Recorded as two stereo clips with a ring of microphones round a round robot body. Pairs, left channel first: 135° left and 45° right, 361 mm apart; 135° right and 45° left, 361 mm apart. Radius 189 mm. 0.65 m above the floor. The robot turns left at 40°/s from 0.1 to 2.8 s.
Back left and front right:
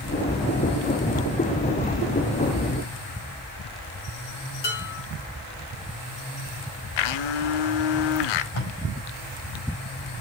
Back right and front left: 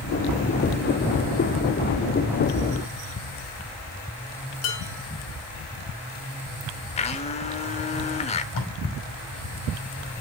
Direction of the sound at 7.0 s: 150° left.